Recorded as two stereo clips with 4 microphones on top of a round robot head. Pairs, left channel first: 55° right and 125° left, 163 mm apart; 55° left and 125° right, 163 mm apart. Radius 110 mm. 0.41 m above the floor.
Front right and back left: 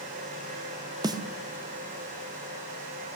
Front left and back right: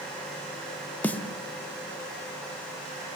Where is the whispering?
No whispering in this recording.